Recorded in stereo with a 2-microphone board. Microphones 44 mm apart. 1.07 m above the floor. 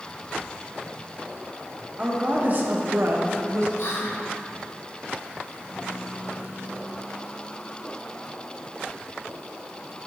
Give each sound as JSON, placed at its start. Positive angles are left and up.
{"t": 2.0, "sound": "a woman speaking", "side_deg": -30, "distance_m": 1.1}
{"t": 3.8, "sound": "whispering", "side_deg": 60, "distance_m": 0.9}